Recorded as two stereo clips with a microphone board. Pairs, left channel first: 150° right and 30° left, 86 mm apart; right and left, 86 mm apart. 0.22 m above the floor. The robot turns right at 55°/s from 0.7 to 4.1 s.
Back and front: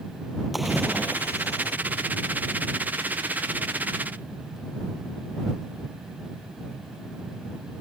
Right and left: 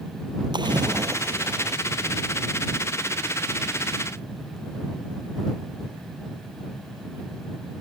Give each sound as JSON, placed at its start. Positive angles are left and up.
{"t": 0.5, "sound": "a splash", "azimuth_deg": 120}